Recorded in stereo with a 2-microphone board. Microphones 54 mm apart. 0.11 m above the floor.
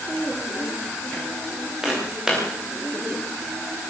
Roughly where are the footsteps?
Centre.